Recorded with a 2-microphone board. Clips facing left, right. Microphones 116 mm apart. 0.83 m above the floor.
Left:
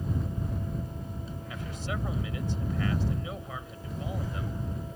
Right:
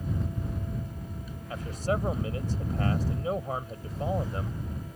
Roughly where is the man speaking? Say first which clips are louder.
Right 8 dB; right.